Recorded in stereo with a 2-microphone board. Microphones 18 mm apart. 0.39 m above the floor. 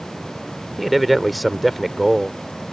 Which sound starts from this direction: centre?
A man speaking, at 0.8 s.